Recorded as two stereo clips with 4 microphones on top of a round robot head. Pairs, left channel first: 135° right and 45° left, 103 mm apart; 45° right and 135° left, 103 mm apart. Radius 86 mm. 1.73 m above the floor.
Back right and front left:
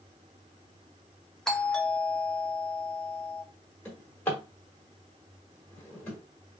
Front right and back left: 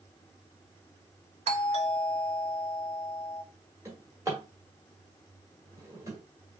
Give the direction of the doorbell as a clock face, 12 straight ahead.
7 o'clock.